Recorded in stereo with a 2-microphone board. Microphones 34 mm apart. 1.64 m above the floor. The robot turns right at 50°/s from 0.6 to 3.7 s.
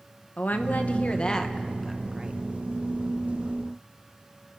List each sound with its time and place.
0.4 s a woman speaking: 115° left, 1.6 m; by 2.4 s 155° right, 1.6 m